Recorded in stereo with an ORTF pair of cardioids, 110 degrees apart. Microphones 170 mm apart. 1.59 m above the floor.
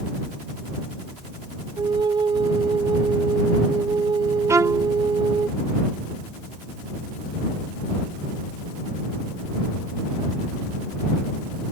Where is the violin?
20° right.